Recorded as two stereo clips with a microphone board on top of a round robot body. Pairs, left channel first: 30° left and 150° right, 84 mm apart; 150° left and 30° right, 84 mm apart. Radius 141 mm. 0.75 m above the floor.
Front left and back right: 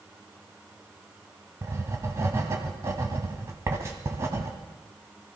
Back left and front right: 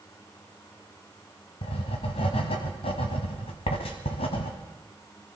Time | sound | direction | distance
1.6 | writing | 150° left | 1.1 m